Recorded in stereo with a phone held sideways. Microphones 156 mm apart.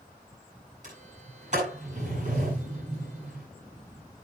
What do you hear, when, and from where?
0.8 s a sliding door: 55° right (ahead or behind), 9.5 m